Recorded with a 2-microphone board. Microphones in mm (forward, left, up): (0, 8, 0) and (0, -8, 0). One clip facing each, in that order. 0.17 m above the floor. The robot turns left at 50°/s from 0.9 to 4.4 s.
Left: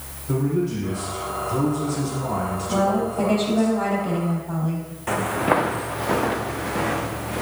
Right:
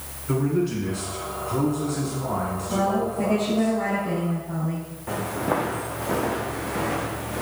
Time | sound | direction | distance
0.3 | a man speaking | 110° right | 1.7 m
2.7 | a woman speaking | 155° left | 4.5 m
5.1 | footsteps | 65° left (ahead or behind) | 0.7 m